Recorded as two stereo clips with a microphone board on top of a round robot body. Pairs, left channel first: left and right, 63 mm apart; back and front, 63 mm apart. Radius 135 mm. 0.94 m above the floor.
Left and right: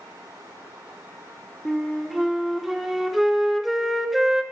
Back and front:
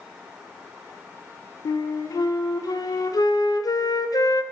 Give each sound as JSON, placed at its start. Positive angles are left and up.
{"t": 1.6, "sound": "a flute", "azimuth_deg": 180, "distance_m": 0.5}